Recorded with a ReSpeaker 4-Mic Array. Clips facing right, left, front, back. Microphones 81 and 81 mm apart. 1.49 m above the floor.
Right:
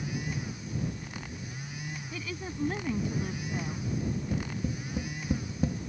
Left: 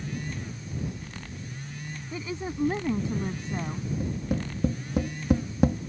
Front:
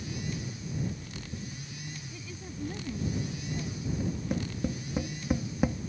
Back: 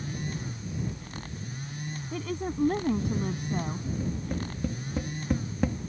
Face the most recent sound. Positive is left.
turn(degrees=80)